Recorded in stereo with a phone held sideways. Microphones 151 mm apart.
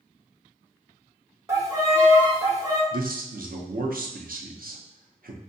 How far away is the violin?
About 0.9 m.